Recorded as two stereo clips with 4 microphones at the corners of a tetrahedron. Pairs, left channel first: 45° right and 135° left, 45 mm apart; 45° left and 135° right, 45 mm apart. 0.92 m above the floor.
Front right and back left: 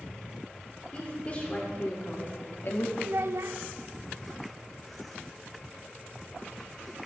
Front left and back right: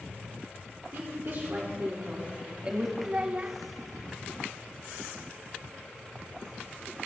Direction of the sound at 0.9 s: 105° right.